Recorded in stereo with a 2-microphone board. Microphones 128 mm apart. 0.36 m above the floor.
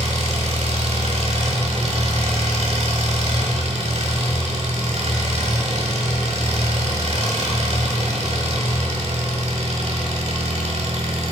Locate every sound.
0.0 s an engine running: 55° right (ahead or behind), 1.2 m